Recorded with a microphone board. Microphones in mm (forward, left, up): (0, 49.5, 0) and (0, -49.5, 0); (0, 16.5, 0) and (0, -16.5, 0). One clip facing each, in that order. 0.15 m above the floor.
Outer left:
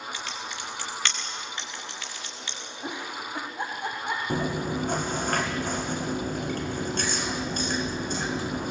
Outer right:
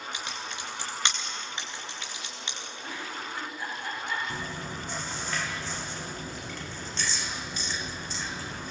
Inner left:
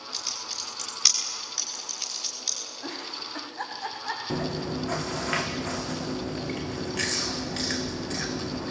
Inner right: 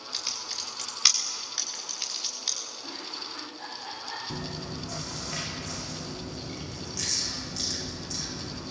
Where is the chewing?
50° left (ahead or behind), 2.5 m.